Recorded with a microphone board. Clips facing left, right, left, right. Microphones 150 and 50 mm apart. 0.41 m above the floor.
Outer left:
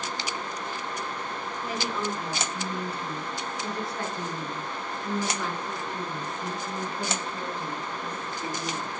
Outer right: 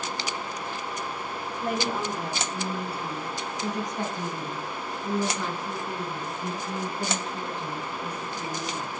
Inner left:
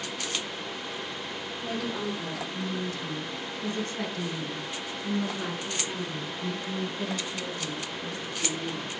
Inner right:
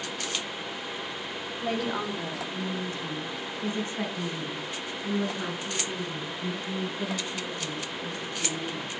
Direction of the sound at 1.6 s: 60° right (ahead or behind).